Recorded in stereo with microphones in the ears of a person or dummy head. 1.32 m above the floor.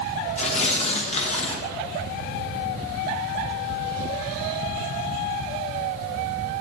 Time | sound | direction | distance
0.4 | tearing paper | 40° left (ahead or behind) | 1.2 m